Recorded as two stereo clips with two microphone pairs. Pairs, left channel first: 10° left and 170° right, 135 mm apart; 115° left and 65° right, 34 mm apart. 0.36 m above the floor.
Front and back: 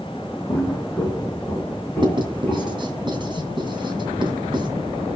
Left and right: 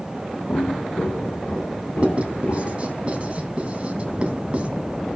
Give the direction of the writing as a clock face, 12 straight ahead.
4 o'clock.